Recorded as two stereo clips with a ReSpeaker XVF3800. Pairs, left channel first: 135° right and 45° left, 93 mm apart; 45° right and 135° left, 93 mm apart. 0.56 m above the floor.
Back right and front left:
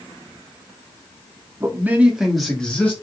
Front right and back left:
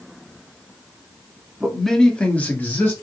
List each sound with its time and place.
1.6 s a man speaking: 45° left, 0.8 m; by 2.9 s 80° right, 0.8 m